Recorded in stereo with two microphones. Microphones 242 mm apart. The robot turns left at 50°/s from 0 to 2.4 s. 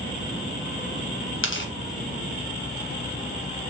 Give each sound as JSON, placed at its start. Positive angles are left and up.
{"t": 1.4, "sound": "tearing paper", "side_deg": 55, "distance_m": 0.9}